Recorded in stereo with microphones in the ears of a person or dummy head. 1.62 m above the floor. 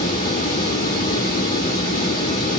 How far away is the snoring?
I don't hear snoring.